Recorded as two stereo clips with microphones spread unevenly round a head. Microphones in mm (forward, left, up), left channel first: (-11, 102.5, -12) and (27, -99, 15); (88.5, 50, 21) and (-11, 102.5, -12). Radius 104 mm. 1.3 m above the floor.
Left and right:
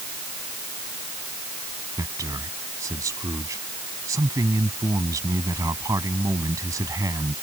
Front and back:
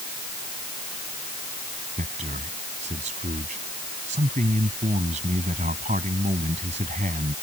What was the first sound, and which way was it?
A man speaking, 155° right.